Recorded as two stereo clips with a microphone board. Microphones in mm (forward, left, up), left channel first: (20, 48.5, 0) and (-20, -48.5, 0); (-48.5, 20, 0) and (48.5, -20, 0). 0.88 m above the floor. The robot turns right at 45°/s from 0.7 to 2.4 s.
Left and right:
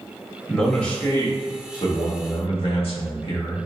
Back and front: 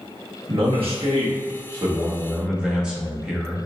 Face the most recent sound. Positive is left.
turn(degrees=60)